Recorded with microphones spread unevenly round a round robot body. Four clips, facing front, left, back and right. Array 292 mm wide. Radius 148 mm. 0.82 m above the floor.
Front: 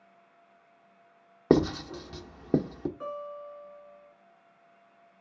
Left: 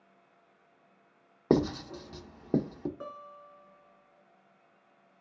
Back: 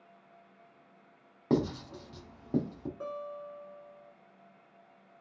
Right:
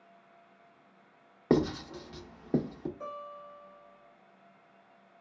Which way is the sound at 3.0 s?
125° left.